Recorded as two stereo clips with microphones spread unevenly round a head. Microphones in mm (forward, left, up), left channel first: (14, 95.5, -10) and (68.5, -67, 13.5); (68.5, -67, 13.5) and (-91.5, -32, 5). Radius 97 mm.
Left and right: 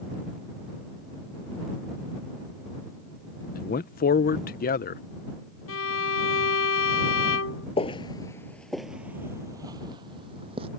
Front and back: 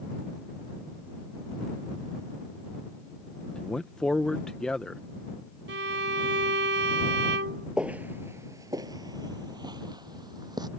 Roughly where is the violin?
Behind left.